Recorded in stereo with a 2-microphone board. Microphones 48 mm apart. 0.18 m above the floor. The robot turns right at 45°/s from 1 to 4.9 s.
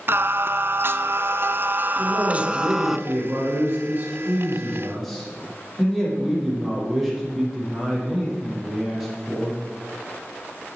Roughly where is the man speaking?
Behind right.